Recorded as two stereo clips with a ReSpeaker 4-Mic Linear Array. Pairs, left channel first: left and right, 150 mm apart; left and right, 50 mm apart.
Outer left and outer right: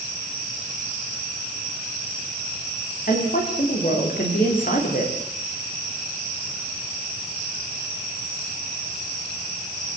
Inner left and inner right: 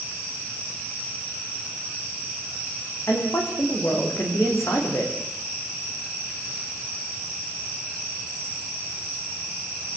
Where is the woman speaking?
70° left (ahead or behind), 8.5 m.